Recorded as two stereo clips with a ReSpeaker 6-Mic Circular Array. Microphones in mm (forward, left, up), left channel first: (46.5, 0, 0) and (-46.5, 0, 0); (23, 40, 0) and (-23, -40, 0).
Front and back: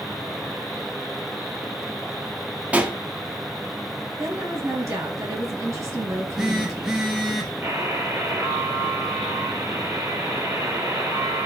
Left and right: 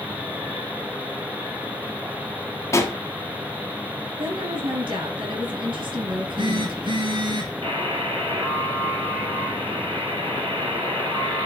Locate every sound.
2.7 s a pop: 110° left, 1.1 m
4.2 s a woman speaking: 130° right, 3 m
6.1 s a phone buzzing: 95° right, 1.8 m
7.6 s a buzzer: 125° right, 3.5 m